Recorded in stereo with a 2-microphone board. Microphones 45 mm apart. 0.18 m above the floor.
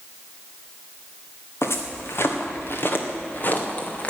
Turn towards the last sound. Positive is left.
turn(degrees=30)  # may be behind; listen again after turning